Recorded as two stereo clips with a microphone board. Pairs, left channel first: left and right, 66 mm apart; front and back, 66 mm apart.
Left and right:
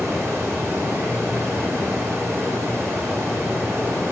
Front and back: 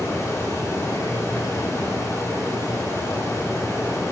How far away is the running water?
About 3 m.